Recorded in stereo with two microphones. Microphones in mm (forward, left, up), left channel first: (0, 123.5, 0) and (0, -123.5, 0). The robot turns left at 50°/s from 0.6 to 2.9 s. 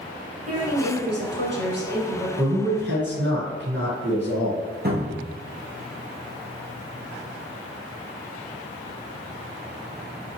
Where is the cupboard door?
40° right (ahead or behind), 1.6 m.